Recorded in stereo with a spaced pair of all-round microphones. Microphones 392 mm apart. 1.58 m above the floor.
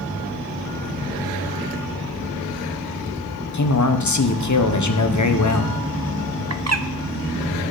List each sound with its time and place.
3.5 s a man speaking: 50° left (ahead or behind), 0.9 m
6.5 s a bird: 45° right (ahead or behind), 0.5 m